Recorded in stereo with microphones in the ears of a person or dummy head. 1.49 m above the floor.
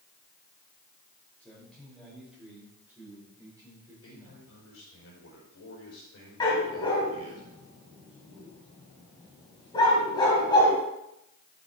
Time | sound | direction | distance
1.4 | a man speaking | 10° left (ahead or behind) | 6 m
4.0 | a man speaking | 85° left | 5 m
6.4 | a dog barking | 30° left (ahead or behind) | 3.5 m